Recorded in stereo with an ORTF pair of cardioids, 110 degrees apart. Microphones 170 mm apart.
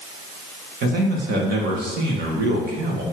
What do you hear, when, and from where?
0.8 s a man speaking: 60° right, 2 m